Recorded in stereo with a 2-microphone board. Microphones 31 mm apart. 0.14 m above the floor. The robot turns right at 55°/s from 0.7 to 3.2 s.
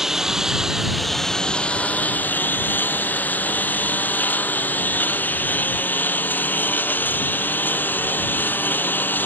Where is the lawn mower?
15° right (ahead or behind); by 9.3 s 85° left.